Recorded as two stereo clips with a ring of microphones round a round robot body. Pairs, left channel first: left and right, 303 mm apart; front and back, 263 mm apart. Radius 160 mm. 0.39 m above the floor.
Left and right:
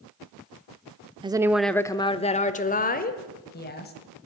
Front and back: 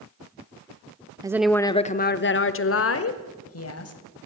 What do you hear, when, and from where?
1.2 s a woman speaking: 135° right, 0.8 m; by 3.9 s 30° left, 2.5 m